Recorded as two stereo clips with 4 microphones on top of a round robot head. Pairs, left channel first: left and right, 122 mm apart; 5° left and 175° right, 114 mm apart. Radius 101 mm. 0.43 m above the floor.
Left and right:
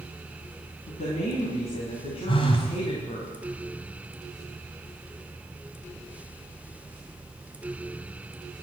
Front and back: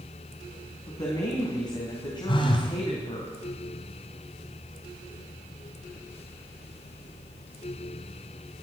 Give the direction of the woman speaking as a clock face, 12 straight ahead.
10 o'clock.